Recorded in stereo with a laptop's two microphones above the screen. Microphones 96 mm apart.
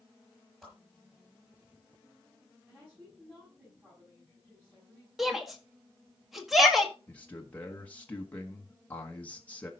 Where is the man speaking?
15° left (ahead or behind), 1.1 m.